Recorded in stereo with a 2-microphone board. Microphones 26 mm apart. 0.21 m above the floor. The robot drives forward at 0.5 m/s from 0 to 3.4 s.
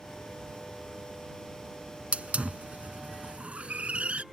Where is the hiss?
55° right (ahead or behind).